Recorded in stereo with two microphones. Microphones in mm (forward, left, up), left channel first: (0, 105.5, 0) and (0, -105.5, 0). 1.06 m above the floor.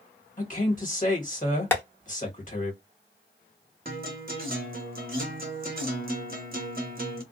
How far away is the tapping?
About 0.8 m.